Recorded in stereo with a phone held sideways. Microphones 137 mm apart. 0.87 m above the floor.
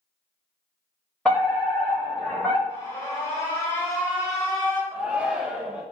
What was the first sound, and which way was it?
A fire alarm, 10° left (ahead or behind).